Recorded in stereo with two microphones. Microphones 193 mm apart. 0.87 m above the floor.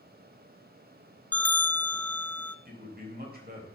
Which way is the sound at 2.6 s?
50° right (ahead or behind).